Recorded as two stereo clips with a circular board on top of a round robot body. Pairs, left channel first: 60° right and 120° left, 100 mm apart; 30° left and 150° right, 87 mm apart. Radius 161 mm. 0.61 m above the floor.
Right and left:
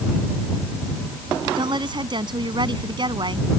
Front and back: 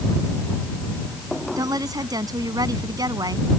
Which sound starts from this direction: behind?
A woman speaking, at 1.6 s.